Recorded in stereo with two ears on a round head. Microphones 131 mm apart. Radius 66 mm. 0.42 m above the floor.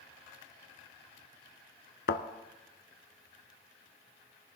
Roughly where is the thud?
Left.